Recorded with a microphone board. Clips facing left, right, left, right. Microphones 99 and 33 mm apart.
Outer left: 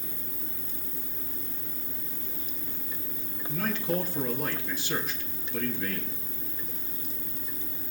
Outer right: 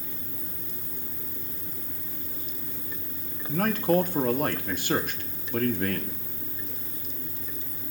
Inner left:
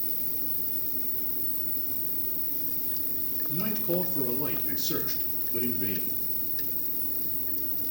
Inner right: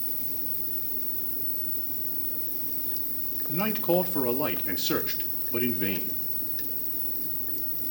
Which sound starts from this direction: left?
An insect, at 0.0 s.